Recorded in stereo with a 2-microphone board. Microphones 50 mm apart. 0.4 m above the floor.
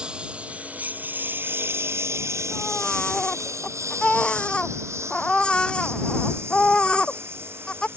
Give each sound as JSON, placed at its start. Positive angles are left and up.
{"t": 0.0, "sound": "a lawn mower", "side_deg": -15}
{"t": 2.5, "sound": "a baby crying", "side_deg": 20}